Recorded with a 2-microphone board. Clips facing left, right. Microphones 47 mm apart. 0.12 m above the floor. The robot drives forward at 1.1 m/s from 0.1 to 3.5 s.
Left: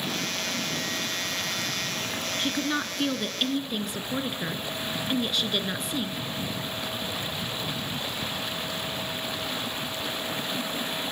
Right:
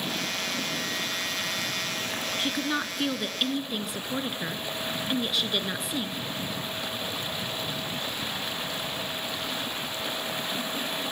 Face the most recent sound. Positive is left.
turn(degrees=0)  # may be behind; listen again after turning